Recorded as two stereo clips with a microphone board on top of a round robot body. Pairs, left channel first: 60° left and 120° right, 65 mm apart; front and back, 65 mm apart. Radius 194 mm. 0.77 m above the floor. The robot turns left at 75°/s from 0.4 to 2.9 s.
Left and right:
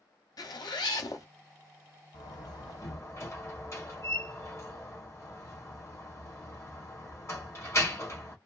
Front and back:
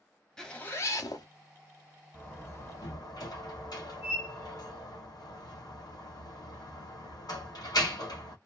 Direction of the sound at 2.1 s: 70° left.